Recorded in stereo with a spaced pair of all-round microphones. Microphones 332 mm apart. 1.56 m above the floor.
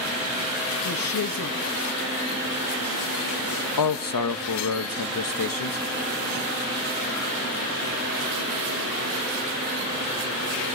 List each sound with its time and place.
0.8 s a woman speaking: 85° left, 0.8 m
3.8 s a man speaking: 75° left (ahead or behind), 0.6 m